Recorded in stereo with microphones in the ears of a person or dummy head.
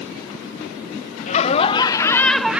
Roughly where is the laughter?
Left.